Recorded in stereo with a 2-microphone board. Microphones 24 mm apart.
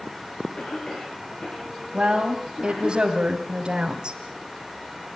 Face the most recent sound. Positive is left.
turn(degrees=-35)  # may be behind; listen again after turning